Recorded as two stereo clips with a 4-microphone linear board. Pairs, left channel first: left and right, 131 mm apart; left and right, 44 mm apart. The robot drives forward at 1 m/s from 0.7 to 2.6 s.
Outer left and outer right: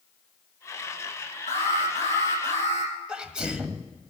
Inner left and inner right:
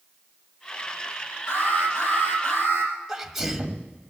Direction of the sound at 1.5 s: 85° left.